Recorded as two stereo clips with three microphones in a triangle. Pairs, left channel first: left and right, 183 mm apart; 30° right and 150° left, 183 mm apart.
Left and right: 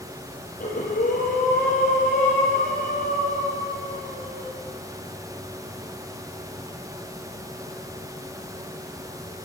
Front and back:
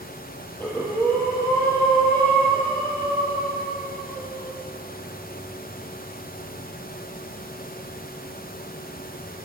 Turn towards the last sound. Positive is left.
turn(degrees=50)